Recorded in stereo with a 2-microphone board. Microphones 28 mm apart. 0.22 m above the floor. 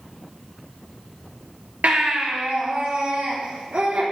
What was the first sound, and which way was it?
A baby crying, 75° right (ahead or behind).